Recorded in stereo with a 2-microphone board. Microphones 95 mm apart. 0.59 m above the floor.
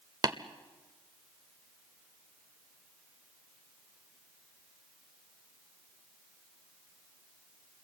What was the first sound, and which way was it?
Tapping, 45° right (ahead or behind).